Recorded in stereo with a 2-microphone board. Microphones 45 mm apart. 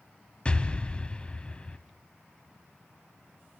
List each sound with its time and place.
0.5 s an explosion: 25° left (ahead or behind), 1.1 m